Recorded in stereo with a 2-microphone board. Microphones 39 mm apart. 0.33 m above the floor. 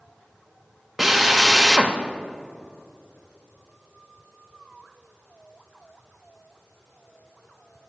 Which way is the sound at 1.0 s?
5° right (ahead or behind).